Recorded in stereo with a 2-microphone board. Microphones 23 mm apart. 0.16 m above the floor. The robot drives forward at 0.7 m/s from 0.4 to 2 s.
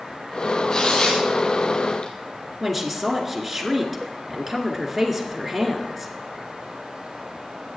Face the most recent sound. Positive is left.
turn(degrees=-5)  # may be behind; listen again after turning